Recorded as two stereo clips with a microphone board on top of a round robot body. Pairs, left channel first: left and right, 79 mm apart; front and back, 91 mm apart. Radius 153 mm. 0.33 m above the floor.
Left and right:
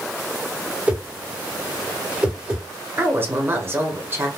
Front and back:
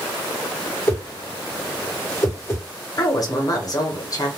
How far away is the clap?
No clap in this recording.